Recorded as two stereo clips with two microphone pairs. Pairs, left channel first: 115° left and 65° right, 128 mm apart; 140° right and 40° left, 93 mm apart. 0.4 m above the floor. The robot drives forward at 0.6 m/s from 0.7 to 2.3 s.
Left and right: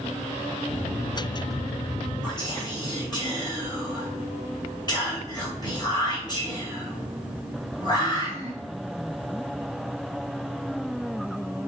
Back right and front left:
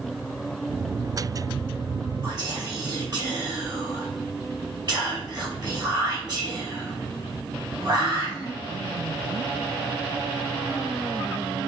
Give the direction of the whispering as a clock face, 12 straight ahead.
10 o'clock.